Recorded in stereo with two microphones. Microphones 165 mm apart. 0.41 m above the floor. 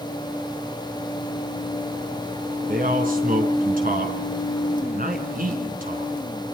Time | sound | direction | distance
2.7 | a man speaking | 60° right (ahead or behind) | 4.5 m